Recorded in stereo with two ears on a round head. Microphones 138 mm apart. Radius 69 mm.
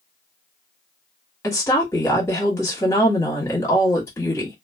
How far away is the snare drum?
I don't hear a snare drum.